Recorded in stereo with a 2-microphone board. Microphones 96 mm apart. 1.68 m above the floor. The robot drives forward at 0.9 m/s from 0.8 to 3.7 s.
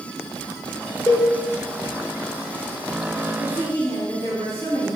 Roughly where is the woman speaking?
Left.